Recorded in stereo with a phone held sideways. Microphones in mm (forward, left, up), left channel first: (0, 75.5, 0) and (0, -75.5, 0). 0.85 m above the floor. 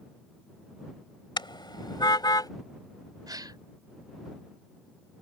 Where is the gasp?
30° right (ahead or behind).